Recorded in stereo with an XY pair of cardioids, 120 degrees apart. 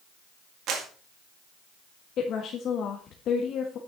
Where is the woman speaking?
60° left, 1.6 m.